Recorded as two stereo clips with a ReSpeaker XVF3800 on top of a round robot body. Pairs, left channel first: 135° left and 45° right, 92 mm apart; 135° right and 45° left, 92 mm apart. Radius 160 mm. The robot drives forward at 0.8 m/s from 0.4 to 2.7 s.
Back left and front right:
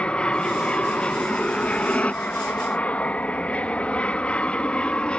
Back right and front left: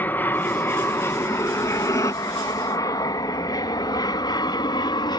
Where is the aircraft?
165° right; by 5.2 s 150° right.